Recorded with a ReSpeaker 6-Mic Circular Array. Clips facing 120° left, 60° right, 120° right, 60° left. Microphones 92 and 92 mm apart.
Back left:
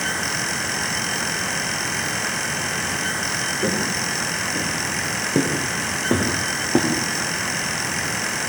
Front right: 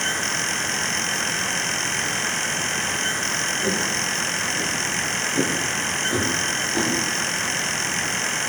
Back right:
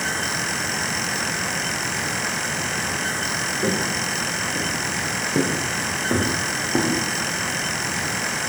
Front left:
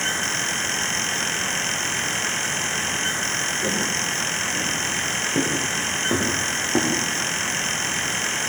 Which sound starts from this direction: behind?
Footsteps, at 3.6 s.